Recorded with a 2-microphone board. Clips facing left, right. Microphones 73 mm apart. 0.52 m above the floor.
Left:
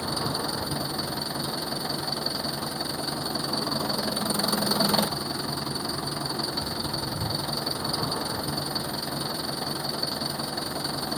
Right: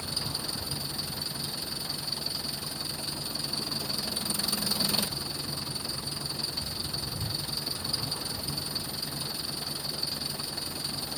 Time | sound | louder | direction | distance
0.0 | an engine running | left 9 dB | 50° left (ahead or behind) | ?